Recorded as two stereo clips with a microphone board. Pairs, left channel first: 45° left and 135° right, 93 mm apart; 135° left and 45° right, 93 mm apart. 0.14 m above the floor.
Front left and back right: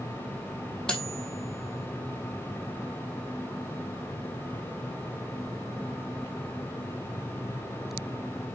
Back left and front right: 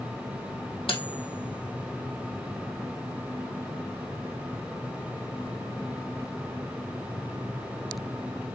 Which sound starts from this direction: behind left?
Cutlery clinking, at 0.9 s.